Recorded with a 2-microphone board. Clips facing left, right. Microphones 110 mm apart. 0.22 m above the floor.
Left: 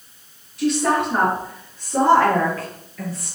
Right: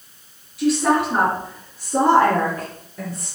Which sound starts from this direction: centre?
A woman speaking, at 0.6 s.